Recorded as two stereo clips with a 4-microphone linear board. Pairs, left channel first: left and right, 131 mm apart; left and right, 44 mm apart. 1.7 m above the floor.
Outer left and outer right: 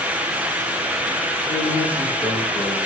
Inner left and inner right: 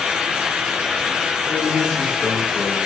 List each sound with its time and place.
1.5 s a man speaking: 20° left (ahead or behind), 4.5 m